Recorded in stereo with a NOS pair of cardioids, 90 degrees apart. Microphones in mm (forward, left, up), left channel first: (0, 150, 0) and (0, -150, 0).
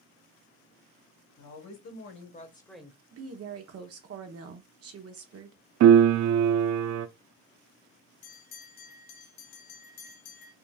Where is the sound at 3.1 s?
50° right, 1.0 m.